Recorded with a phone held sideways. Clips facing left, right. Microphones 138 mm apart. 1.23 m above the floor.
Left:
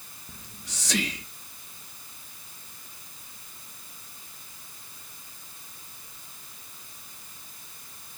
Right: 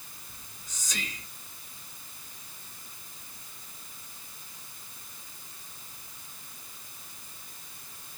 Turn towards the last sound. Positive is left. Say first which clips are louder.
# left 9 dB
turn(degrees=75)  # may be behind; listen again after turning